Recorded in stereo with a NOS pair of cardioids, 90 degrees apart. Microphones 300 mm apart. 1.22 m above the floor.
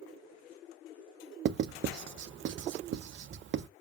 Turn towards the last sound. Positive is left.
turn(degrees=-40)